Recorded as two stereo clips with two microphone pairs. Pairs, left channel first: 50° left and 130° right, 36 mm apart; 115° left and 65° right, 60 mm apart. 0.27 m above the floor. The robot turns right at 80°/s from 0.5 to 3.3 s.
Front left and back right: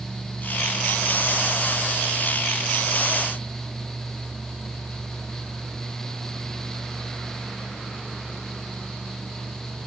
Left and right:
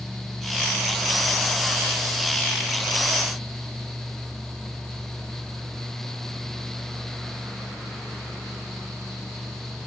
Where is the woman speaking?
I don't hear a woman speaking.